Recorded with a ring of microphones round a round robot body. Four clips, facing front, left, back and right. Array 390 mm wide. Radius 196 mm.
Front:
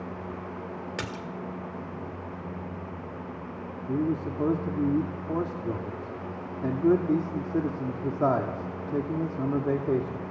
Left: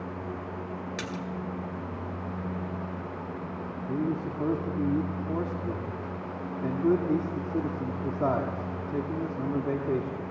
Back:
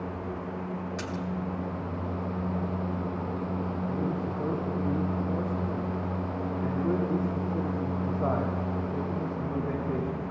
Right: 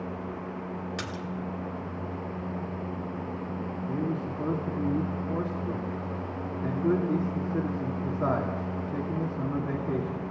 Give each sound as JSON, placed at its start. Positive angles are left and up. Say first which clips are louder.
{"t": 1.0, "sound": "a splash", "louder": "left 1 dB, back 1 dB", "azimuth_deg": 10, "distance_m": 1.9}
{"t": 3.9, "sound": "a man speaking", "louder": "left 2 dB, front 3 dB", "azimuth_deg": 20, "distance_m": 2.0}